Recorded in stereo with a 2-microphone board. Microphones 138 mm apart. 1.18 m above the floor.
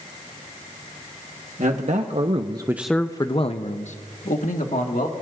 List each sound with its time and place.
1.6 s a man speaking: 65° right (ahead or behind), 1.2 m; by 5.1 s 75° left (ahead or behind), 2 m